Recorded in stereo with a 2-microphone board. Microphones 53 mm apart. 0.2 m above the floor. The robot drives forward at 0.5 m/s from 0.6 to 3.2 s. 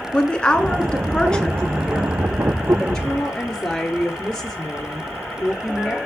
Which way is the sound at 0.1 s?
15° left (ahead or behind).